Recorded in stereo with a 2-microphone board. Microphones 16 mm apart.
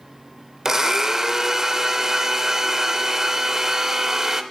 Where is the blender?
35° right (ahead or behind), 0.6 m.